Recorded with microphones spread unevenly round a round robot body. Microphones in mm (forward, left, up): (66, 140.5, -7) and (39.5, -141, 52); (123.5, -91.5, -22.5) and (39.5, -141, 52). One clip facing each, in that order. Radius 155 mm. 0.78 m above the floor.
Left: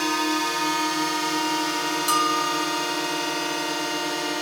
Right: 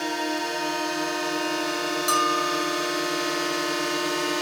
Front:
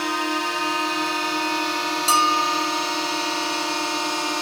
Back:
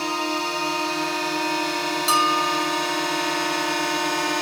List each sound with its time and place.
0.0 s a drone: 115° left; by 4.4 s straight behind
2.1 s a bell: straight ahead